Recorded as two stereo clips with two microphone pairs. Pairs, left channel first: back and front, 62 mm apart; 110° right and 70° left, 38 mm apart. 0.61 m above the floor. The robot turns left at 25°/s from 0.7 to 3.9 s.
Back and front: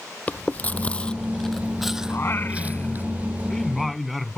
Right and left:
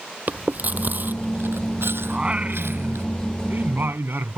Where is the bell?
I don't hear a bell.